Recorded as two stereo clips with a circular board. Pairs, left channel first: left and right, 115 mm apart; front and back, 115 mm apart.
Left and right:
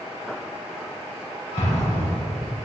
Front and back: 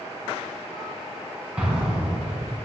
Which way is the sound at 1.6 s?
100° left.